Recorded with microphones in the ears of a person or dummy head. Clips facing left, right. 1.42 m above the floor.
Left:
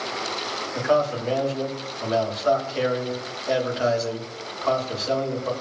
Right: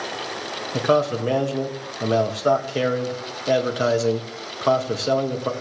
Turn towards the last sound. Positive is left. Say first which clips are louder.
# right 2 dB
turn(degrees=-45)  # may be behind; listen again after turning